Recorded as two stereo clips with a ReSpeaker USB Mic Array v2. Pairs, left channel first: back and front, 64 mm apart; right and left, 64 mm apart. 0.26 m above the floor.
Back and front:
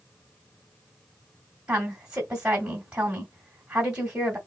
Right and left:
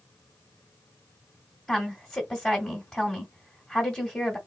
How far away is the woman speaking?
About 1.4 m.